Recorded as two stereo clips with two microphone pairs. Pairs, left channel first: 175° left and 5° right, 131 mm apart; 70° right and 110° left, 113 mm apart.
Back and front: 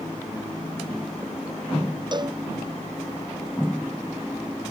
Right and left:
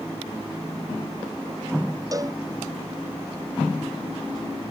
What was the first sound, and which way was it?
A cowbell, 50° left.